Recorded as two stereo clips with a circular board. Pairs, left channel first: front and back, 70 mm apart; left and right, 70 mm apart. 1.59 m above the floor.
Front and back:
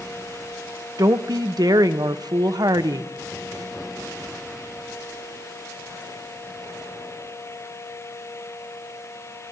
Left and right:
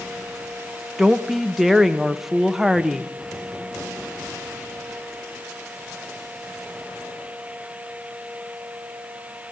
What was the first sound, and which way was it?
A woman speaking, 175° right.